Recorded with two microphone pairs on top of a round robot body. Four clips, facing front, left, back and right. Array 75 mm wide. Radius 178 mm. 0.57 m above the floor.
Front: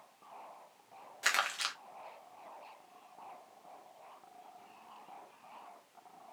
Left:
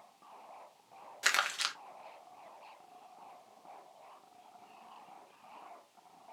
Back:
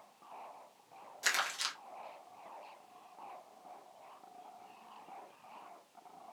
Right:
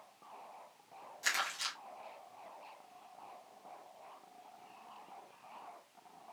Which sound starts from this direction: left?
Crumpling, at 1.2 s.